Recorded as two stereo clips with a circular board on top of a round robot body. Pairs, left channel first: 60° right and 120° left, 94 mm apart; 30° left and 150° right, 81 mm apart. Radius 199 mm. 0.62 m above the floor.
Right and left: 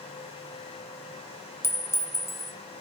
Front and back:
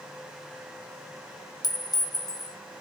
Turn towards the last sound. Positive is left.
turn(degrees=0)